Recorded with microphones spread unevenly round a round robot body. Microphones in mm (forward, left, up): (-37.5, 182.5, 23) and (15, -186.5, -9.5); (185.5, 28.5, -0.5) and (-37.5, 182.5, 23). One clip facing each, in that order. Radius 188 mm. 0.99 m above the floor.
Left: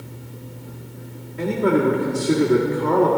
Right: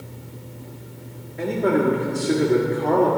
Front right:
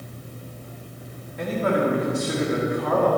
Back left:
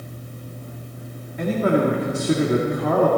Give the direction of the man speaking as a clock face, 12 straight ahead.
6 o'clock.